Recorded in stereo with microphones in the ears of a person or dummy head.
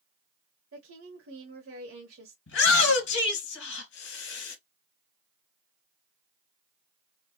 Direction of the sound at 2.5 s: 75° left (ahead or behind).